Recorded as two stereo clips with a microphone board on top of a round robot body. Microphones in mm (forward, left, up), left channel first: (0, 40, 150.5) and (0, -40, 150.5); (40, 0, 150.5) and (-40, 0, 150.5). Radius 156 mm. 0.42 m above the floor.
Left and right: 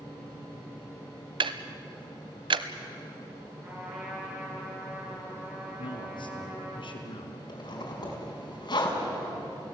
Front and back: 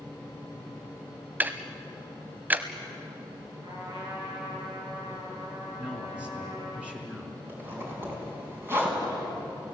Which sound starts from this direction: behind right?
A trumpet, at 3.6 s.